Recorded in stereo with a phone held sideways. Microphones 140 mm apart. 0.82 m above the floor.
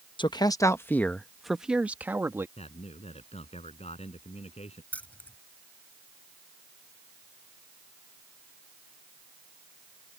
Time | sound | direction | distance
0.2 | a man speaking | 35° left (ahead or behind) | ?
2.6 | a man speaking | 50° left (ahead or behind) | ?
4.9 | keys jangling | 10° left (ahead or behind) | ?